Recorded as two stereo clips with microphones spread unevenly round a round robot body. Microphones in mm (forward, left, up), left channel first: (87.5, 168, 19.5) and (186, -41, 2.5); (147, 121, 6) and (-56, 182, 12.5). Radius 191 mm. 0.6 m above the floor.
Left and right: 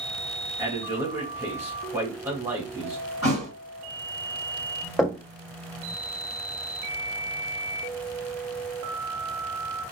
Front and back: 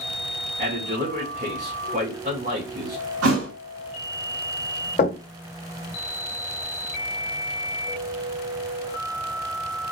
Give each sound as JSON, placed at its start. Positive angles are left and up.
{"t": 0.6, "sound": "a man speaking", "azimuth_deg": -140, "distance_m": 1.4}
{"t": 3.2, "sound": "a thud", "azimuth_deg": 175, "distance_m": 2.5}
{"t": 5.0, "sound": "knocking", "azimuth_deg": 25, "distance_m": 1.4}